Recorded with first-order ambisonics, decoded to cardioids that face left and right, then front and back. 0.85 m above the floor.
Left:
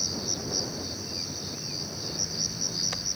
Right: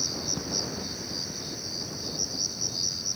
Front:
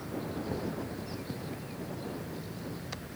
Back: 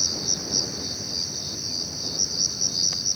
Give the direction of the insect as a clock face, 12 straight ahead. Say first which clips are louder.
Even, back 13 dB; 6 o'clock.